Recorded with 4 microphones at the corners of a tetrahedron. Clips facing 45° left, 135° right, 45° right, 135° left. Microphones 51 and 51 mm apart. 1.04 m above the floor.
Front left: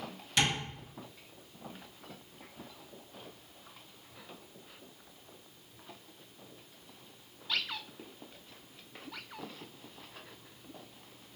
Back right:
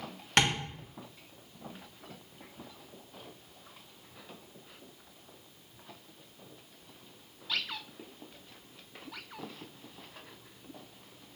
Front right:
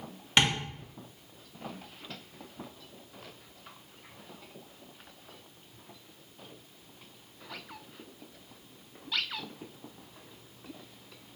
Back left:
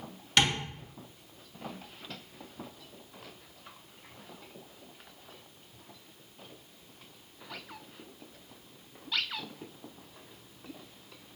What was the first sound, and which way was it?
Tapping, 105° right.